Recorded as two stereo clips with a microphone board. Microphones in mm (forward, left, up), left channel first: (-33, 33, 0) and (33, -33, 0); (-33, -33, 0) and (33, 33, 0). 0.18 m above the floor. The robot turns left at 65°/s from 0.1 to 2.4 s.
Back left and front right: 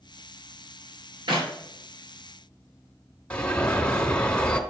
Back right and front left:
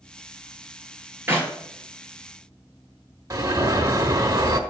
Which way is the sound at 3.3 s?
65° left.